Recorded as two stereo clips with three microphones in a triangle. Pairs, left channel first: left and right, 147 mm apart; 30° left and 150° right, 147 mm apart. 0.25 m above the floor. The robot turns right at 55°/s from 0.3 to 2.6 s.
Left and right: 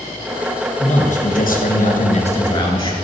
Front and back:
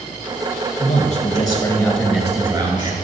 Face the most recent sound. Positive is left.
turn(degrees=150)